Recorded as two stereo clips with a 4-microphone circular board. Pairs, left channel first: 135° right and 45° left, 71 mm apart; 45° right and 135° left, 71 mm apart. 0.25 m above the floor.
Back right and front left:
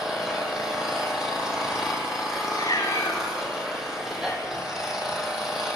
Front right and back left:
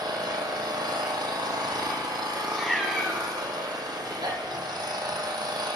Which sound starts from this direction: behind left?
An engine running, at 0.0 s.